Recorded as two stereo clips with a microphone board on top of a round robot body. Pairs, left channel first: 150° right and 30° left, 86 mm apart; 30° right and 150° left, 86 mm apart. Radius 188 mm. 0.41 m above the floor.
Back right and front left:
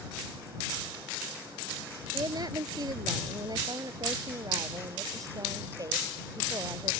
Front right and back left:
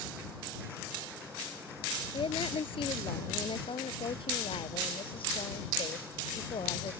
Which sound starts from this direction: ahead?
A woman speaking, at 2.1 s.